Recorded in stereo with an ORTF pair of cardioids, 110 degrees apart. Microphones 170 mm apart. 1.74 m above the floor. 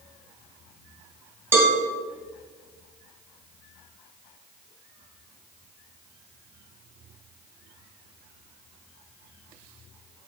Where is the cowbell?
15° right, 2.5 m.